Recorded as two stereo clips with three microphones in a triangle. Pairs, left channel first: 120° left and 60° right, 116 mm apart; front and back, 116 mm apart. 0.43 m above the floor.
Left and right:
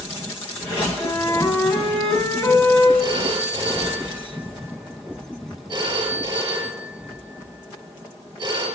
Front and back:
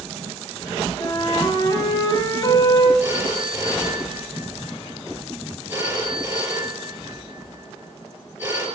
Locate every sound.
1.0 s a flute: 55° left, 1.7 m
3.0 s a phone ringing: 110° right, 5.5 m